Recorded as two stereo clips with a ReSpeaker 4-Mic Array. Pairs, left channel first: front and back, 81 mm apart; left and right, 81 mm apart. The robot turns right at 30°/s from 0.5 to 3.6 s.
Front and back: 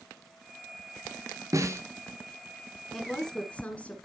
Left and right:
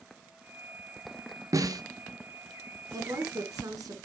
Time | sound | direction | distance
1.5 | a snare drum | 135° right | 1.0 m
2.9 | a woman speaking | 90° right | 2 m